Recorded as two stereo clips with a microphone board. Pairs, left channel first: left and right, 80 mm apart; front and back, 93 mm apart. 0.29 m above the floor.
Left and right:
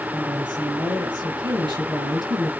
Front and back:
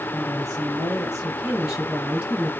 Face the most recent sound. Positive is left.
turn(degrees=-105)